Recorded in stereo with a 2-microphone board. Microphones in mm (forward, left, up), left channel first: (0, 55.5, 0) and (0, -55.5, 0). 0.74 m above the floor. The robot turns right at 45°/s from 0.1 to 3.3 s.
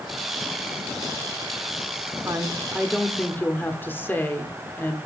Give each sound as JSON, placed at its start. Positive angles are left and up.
{"t": 2.2, "sound": "a woman speaking", "azimuth_deg": -30, "distance_m": 1.6}